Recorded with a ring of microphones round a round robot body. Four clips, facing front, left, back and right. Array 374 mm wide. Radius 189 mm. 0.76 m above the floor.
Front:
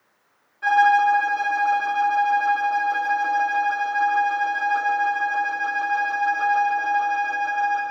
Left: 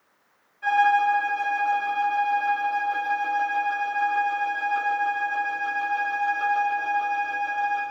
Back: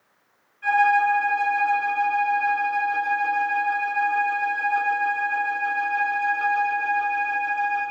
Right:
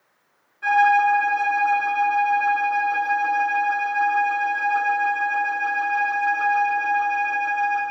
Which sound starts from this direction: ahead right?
A violin, at 0.6 s.